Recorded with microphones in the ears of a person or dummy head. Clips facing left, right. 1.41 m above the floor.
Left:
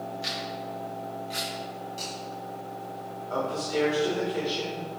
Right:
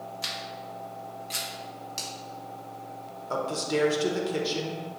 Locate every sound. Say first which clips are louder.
0.2 s a camera shutter: left 4 dB; 60° right (ahead or behind), 0.9 m
2.0 s a finger snap: left 3 dB; 75° right (ahead or behind), 1.5 m
3.3 s a man speaking: even; 70° right (ahead or behind), 1.1 m